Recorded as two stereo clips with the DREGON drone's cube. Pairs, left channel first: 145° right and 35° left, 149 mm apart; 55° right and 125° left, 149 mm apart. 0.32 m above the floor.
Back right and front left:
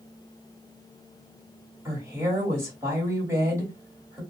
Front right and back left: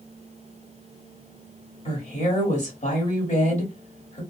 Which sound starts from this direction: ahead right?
A woman speaking, at 1.9 s.